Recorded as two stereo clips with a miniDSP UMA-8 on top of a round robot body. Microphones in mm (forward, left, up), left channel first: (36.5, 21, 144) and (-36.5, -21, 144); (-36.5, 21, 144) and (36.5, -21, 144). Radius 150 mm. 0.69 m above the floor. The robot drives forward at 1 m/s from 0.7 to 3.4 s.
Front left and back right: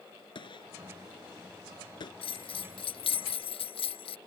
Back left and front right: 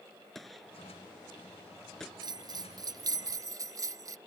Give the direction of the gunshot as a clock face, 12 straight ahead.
10 o'clock.